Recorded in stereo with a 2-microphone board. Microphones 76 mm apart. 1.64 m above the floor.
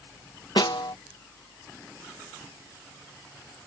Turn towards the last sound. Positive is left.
turn(degrees=70)  # may be behind; listen again after turning